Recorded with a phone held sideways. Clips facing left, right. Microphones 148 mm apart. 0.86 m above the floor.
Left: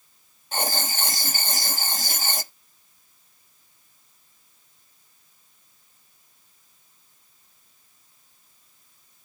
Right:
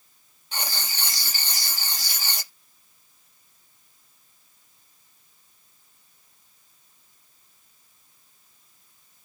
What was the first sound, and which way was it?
Writing, 50° left (ahead or behind).